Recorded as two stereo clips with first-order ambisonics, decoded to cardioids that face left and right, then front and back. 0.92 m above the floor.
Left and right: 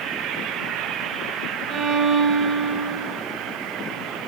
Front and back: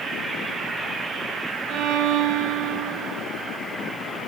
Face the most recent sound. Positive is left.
turn(degrees=-140)